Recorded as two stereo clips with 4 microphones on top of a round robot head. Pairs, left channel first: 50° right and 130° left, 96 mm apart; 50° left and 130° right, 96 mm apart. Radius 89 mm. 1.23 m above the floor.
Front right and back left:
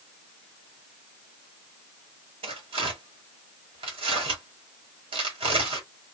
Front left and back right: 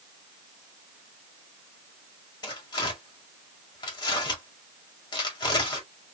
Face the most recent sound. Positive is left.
turn(degrees=95)